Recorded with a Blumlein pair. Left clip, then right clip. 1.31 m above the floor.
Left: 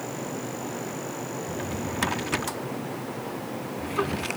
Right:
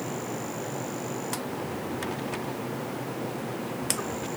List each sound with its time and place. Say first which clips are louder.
1.5 s a drawer: left 1 dB; 60° left